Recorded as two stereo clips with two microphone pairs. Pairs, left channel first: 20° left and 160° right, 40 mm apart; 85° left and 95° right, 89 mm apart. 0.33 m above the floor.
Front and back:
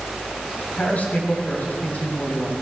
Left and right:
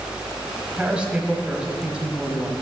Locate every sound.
0.8 s a man speaking: 15° right, 1.9 m